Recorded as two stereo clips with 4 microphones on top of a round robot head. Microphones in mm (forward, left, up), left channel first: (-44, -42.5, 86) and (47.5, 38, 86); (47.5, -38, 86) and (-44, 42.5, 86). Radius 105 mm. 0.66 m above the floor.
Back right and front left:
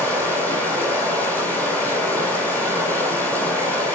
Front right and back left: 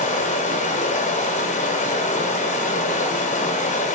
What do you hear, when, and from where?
0.0 s running water: 60° right, 2.5 m